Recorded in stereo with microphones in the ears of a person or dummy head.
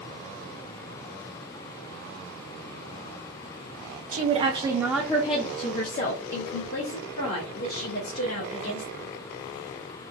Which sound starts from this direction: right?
A woman speaking, at 4.1 s.